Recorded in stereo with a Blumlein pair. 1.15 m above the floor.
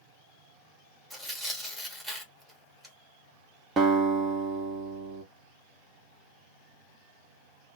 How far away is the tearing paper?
About 1.1 m.